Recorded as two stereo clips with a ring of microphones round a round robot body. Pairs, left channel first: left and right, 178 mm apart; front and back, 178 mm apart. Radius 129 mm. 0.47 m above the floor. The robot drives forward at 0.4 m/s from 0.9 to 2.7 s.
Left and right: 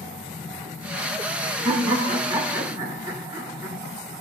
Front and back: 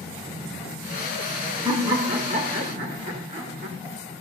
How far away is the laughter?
About 0.9 m.